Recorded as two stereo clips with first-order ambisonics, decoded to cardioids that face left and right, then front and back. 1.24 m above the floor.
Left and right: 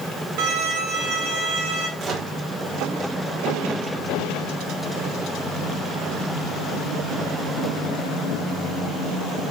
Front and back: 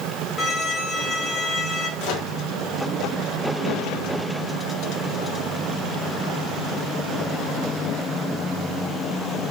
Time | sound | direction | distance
0.4 | a violin | 75° right | 4 m
2.0 | a microwave | 30° right | 3.5 m